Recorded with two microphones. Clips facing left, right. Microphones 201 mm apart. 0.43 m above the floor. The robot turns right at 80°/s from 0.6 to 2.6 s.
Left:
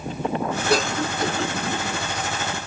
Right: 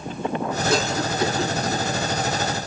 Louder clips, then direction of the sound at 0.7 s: Left 1 dB; 60° left (ahead or behind).